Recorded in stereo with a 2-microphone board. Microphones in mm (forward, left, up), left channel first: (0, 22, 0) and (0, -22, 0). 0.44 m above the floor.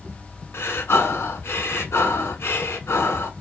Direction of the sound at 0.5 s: 70° left (ahead or behind).